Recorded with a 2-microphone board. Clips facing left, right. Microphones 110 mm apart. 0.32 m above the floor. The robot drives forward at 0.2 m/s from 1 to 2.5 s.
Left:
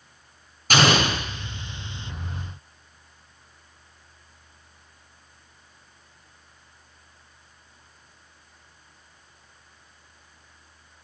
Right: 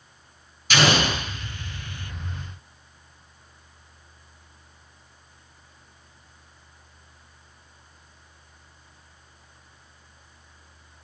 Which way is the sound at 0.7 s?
45° left (ahead or behind).